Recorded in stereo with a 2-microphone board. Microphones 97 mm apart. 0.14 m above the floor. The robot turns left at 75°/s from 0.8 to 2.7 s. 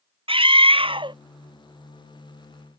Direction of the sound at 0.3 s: 65° right (ahead or behind).